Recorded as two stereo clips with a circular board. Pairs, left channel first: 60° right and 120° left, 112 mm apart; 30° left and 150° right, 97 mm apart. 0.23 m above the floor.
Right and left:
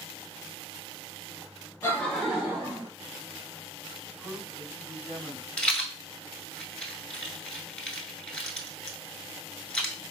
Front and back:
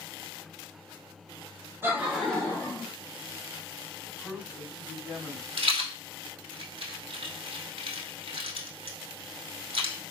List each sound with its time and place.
1.8 s laughter: 110° right, 1.1 m; by 2.9 s 70° left, 1.4 m
4.0 s a man speaking: 120° left, 1.7 m
5.6 s a rattle: 140° right, 0.7 m